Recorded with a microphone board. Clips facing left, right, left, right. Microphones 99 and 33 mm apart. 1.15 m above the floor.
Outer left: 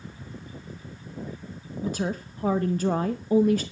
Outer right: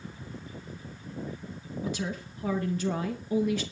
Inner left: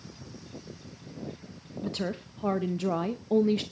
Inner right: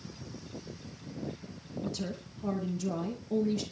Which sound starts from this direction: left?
A woman speaking, at 1.8 s.